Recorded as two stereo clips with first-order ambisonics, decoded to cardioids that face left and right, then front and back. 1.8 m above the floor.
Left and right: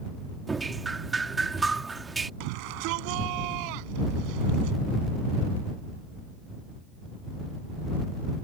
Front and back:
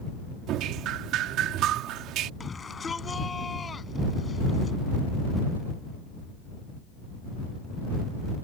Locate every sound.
0.5 s dripping: 165° right
2.4 s a shout: 75° right